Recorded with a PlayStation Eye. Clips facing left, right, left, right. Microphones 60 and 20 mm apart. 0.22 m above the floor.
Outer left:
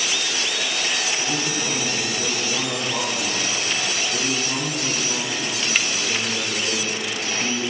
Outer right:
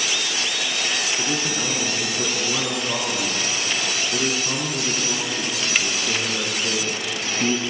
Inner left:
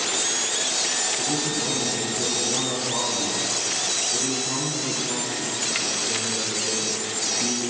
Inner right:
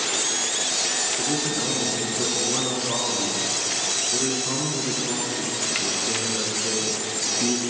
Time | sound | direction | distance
1.2 | a man speaking | 45° right (ahead or behind) | 2.5 m